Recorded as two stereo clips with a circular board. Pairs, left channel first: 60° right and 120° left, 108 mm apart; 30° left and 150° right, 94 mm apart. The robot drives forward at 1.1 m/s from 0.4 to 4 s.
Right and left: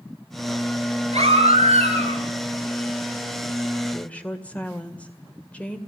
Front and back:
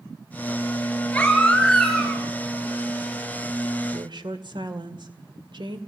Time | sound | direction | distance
1.1 | a baby crying | 105° left | 4.5 m
3.9 | a woman speaking | 135° right | 1.9 m